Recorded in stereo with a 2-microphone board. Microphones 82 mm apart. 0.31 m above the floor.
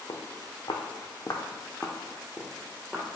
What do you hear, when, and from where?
0.1 s footsteps: 65° left (ahead or behind), 0.9 m; by 3.1 s 10° right (ahead or behind), 1.3 m